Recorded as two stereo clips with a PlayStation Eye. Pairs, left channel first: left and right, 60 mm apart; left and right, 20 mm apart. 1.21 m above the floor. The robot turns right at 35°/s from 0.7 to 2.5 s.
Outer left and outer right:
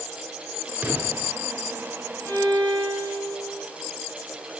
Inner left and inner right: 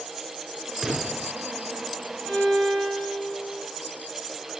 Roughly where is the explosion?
Centre.